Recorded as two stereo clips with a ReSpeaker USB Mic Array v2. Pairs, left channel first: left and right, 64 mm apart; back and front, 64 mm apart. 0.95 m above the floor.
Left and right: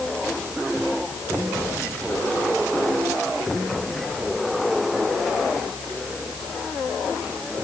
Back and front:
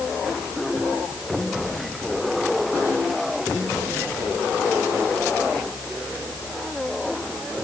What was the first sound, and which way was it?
Only background noise.